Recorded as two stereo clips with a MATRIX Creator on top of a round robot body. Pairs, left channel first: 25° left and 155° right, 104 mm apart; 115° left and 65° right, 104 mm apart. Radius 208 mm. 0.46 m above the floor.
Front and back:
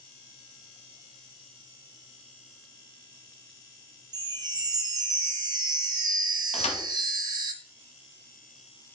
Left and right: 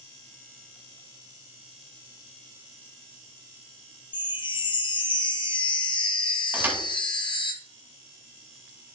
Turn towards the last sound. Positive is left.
turn(degrees=5)